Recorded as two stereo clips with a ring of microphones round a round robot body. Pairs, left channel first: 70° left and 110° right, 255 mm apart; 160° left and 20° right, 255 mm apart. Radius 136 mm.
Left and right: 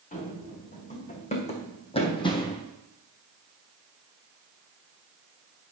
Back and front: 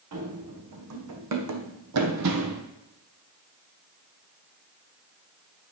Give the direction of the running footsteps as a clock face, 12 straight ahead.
12 o'clock.